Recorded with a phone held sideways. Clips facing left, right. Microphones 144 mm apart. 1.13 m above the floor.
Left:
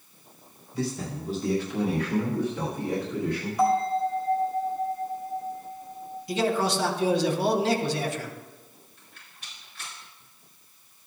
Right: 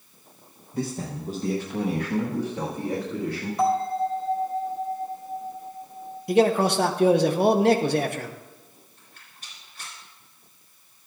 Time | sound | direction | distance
0.7 | a man speaking | 50° right (ahead or behind) | 0.9 m
3.6 | a bell | 25° right (ahead or behind) | 3 m
6.3 | a man speaking | 55° right (ahead or behind) | 0.8 m
9.0 | a rattle | 45° right (ahead or behind) | 4.5 m